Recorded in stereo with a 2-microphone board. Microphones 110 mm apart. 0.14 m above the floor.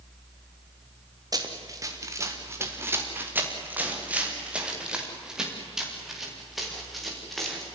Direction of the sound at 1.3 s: 35° right (ahead or behind).